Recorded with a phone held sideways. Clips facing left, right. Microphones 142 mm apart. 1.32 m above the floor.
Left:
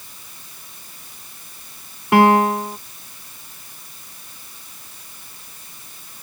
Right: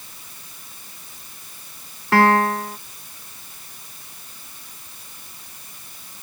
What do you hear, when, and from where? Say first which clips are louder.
2.1 s a piano: left 3 dB; 15° left (ahead or behind)